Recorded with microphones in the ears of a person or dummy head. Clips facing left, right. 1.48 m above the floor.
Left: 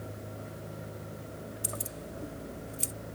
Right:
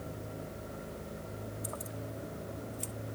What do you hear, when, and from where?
1.6 s keys jangling: 40° left (ahead or behind); by 2.9 s 30° left (ahead or behind)